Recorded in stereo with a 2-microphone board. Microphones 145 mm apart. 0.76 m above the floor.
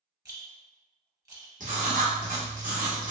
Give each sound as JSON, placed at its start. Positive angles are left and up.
{"t": 0.2, "sound": "a rattle", "side_deg": -25, "distance_m": 0.8}
{"t": 1.6, "sound": "writing", "side_deg": -65, "distance_m": 0.9}